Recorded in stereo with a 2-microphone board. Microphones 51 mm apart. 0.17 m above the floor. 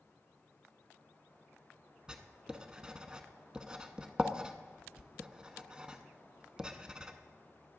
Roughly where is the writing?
Centre.